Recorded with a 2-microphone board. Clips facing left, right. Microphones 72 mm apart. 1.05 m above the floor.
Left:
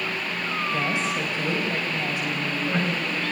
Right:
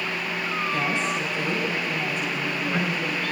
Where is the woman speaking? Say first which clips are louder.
Even; 15° left (ahead or behind), 4.5 m; by 3.2 s 10° left (ahead or behind), 6 m.